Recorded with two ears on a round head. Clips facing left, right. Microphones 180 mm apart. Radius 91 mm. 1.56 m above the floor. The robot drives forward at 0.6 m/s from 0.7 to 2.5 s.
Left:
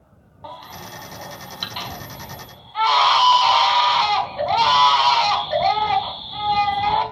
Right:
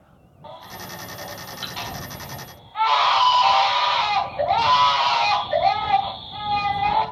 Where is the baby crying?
65° left (ahead or behind), 4.5 m; by 7.0 s 55° left (ahead or behind), 5 m.